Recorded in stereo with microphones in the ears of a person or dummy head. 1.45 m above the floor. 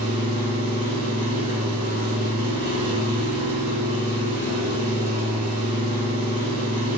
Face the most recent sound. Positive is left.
turn(degrees=-55)  # may be behind; listen again after turning